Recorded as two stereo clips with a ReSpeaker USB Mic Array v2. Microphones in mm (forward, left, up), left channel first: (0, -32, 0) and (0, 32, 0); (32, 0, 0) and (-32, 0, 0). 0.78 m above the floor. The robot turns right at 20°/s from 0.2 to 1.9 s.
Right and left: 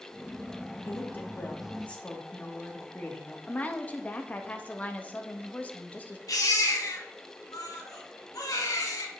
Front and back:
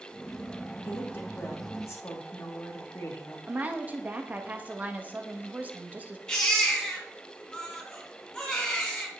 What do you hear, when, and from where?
0.8 s a woman speaking: 45° right, 1.7 m; by 3.4 s 25° right, 1.7 m
3.5 s a woman speaking: 135° right, 0.8 m
6.3 s a baby crying: 75° right, 2 m